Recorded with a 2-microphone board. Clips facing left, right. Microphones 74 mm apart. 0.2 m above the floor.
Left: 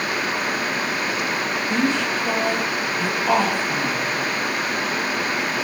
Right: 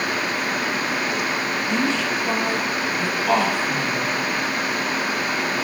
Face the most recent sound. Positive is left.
turn(degrees=15)  # may be behind; listen again after turning